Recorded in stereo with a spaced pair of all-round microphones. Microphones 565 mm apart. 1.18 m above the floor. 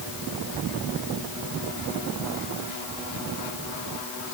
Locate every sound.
Only background noise.